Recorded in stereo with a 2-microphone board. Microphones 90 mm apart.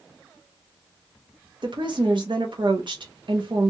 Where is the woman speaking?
60° right (ahead or behind), 0.6 m.